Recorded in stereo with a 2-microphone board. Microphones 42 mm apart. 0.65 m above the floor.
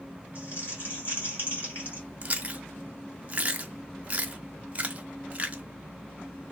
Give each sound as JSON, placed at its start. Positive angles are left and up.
{"t": 0.3, "sound": "crumpling", "side_deg": 50, "distance_m": 2.5}
{"t": 2.2, "sound": "chewing", "side_deg": -30, "distance_m": 0.6}